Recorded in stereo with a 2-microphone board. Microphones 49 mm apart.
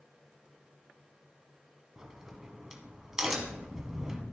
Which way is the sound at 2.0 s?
10° right (ahead or behind).